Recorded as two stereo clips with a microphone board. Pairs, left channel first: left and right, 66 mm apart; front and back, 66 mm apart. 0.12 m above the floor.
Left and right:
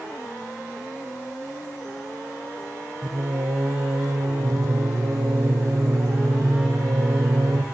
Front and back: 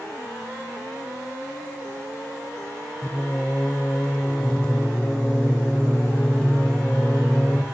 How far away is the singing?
About 1.3 m.